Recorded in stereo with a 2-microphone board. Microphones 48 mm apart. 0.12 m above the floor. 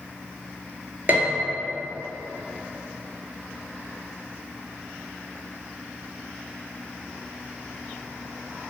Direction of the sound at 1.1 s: 40° right (ahead or behind).